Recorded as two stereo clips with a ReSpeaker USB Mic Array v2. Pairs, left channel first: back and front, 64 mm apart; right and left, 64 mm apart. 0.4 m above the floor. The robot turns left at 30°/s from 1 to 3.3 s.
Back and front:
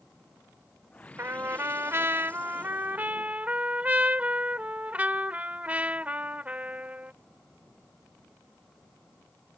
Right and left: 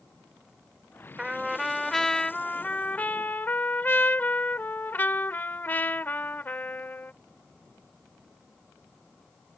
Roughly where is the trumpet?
Ahead.